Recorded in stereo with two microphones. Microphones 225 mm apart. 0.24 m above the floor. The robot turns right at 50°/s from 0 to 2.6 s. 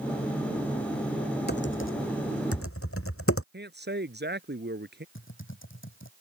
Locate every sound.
1.5 s typing on a keyboard: 45° left (ahead or behind); by 3.4 s 75° left (ahead or behind)
3.5 s a man speaking: 50° right (ahead or behind)
5.2 s typing on a keyboard: 65° left (ahead or behind)